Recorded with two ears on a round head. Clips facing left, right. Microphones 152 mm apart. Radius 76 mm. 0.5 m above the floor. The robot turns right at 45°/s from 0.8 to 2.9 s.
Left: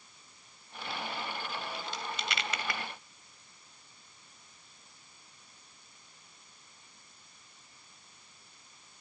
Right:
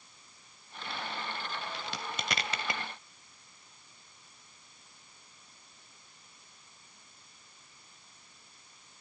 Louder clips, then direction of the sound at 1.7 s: Even; 60° right (ahead or behind).